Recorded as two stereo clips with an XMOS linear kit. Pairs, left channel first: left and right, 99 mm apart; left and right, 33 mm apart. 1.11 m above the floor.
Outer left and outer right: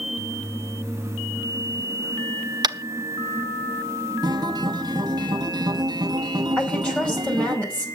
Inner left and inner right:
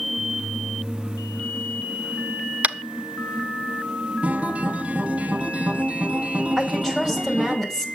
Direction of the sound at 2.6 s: 45° right (ahead or behind).